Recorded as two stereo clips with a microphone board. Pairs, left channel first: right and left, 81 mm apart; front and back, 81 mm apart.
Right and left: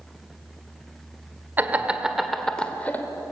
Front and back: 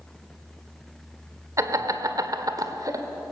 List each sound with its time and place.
1.6 s laughter: 150° left, 1.6 m; by 3.0 s 150° right, 1.7 m